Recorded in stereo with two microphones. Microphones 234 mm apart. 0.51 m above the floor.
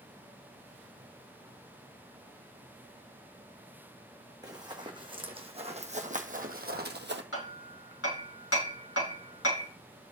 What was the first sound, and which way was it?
Running footsteps, 15° right (ahead or behind).